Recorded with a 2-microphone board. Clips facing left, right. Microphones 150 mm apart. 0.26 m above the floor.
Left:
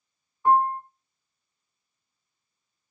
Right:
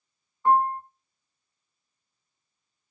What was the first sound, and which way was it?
A piano, 15° left (ahead or behind).